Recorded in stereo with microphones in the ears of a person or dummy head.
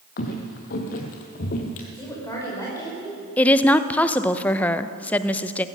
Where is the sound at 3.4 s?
10° left (ahead or behind), 0.5 m.